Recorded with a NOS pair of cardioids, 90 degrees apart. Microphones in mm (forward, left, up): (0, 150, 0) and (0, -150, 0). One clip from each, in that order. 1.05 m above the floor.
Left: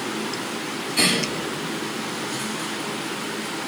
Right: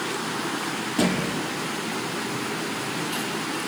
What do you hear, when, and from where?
1.0 s a thud: 25° right, 8 m